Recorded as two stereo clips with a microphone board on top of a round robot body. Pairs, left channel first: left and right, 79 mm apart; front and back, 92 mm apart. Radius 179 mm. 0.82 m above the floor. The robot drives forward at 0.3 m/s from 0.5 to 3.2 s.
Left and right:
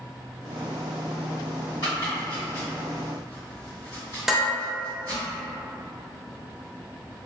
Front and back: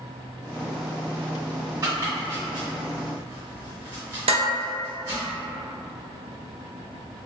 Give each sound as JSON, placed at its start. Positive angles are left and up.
{"t": 1.8, "sound": "chopping", "azimuth_deg": 120, "distance_m": 1.8}
{"t": 4.3, "sound": "dishes clattering", "azimuth_deg": -175, "distance_m": 0.7}